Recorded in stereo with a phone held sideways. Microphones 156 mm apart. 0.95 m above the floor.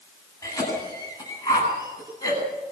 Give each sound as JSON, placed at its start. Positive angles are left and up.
{"t": 0.4, "sound": "a cough", "side_deg": 20, "distance_m": 8.5}